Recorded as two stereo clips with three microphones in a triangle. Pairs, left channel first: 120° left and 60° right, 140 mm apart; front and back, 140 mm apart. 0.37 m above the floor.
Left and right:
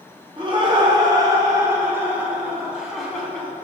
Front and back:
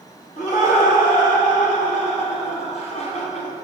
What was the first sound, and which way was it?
Laughter, 15° right.